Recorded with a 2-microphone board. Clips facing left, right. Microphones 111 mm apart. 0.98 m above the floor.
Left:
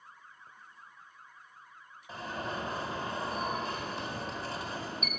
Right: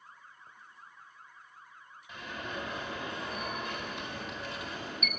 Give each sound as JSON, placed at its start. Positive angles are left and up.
{"t": 2.1, "sound": "an alarm", "side_deg": 35, "distance_m": 4.0}